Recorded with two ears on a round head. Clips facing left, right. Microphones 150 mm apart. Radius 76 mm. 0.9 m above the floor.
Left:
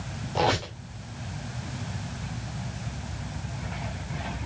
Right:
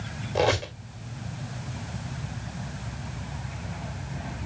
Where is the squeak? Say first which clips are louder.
Right 2 dB; 15° right (ahead or behind), 2.5 m.